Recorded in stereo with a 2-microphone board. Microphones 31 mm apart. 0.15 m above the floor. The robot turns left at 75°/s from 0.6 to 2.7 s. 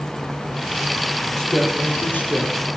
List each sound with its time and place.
1.4 s a woman speaking: 170° left, 4 m; by 2.5 s 80° left, 4 m